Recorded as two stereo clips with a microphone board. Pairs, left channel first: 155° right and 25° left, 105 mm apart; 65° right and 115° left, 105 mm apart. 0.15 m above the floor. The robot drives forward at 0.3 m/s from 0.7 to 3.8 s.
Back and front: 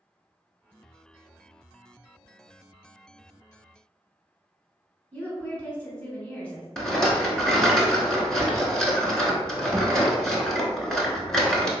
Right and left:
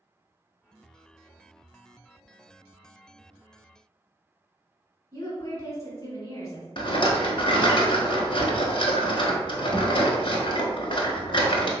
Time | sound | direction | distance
5.1 | a woman speaking | 90° right | 1.3 m
6.8 | a rattle | 75° right | 0.8 m